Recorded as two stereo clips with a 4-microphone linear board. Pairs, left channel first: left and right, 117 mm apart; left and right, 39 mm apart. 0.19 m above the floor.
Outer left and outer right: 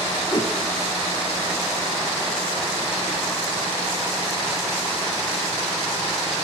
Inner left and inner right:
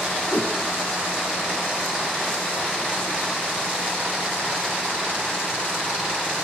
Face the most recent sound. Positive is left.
turn(degrees=40)  # may be behind; listen again after turning